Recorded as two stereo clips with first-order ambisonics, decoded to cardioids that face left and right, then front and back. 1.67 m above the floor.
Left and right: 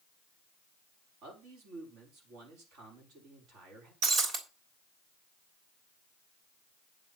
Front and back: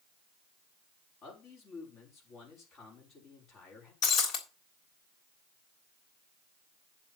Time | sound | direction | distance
1.2 | a man speaking | 55° right | 6 m
4.0 | breaking glass | 35° right | 3 m